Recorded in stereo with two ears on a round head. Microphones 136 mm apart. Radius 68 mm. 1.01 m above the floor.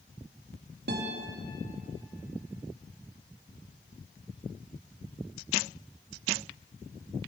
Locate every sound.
0.9 s a guitar: 70° right (ahead or behind), 1.8 m